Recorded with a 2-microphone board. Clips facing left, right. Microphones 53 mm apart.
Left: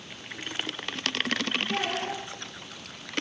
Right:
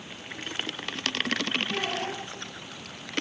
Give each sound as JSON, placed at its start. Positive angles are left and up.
{"t": 1.7, "sound": "a child speaking", "side_deg": 45, "distance_m": 7.0}